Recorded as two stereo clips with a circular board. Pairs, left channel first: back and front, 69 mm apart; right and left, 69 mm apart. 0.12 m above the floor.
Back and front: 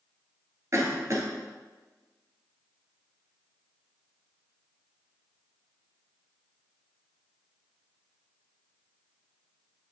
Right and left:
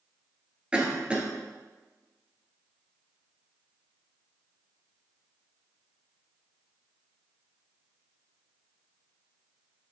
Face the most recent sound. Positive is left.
turn(degrees=20)